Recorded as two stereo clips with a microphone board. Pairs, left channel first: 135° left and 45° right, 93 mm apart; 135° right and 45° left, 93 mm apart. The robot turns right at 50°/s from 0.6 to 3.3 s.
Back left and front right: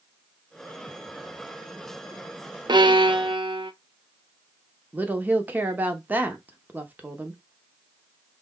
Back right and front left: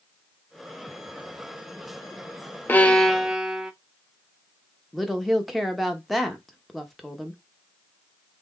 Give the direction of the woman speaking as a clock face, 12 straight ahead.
2 o'clock.